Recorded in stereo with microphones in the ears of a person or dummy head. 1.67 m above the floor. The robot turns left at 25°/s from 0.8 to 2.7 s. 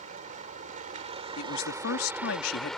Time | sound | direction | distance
0.0 | a vehicle | 135° right | ?
1.4 | a man speaking | 110° left | ?